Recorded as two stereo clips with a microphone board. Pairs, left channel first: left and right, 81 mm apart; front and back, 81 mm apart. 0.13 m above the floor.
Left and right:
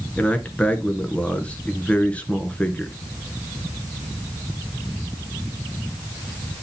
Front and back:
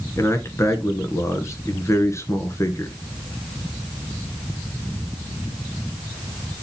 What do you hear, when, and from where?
0.2 s a man speaking: 25° left, 1.5 m